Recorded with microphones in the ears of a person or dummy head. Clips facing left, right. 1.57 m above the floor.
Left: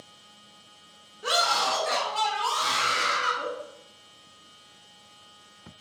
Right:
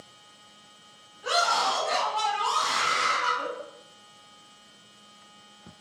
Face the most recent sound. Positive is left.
turn(degrees=55)  # may be behind; listen again after turning